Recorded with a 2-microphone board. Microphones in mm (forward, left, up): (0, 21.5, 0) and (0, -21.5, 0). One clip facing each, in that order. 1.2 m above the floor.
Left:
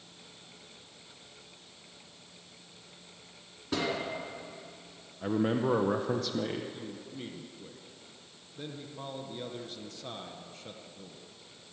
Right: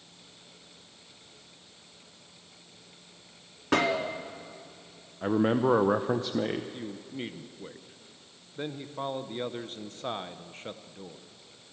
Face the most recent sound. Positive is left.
turn(degrees=-45)  # may be behind; listen again after turning